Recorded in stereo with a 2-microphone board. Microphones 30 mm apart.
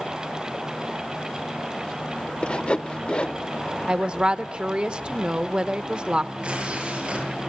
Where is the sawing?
40° left (ahead or behind), 0.7 m.